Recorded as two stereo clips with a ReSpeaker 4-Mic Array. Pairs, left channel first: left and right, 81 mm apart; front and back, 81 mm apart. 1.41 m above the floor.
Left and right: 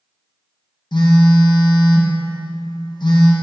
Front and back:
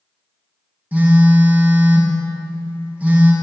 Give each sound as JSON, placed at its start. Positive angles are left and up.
{"t": 0.9, "sound": "a phone buzzing", "azimuth_deg": 110, "distance_m": 0.7}